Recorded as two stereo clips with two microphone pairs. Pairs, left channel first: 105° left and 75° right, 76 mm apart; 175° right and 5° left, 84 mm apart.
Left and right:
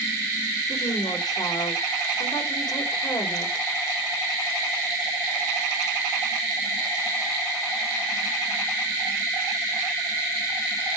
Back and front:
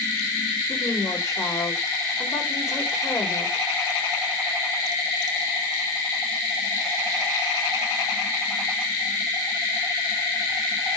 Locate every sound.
0.7 s a woman speaking: 135° left, 3.5 m